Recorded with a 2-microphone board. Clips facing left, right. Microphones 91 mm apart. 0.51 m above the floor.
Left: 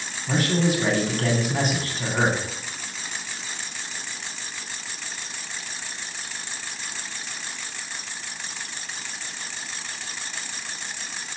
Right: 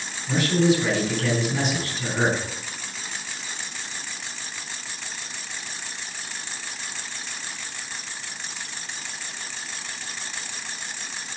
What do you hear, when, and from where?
0.3 s a man speaking: 45° left (ahead or behind), 3.5 m